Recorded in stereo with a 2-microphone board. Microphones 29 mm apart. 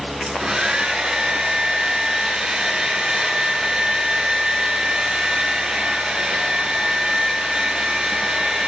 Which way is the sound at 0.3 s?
25° right (ahead or behind).